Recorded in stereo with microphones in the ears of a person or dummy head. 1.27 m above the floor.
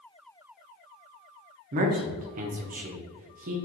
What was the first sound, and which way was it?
A man speaking, 40° right (ahead or behind).